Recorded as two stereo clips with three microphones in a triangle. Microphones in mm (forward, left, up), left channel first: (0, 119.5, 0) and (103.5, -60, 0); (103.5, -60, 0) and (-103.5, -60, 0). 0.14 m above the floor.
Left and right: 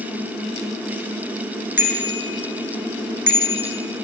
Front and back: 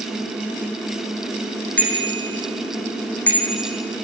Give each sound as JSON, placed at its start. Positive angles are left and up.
{"t": 1.8, "sound": "a bicycle bell", "azimuth_deg": -85, "distance_m": 5.5}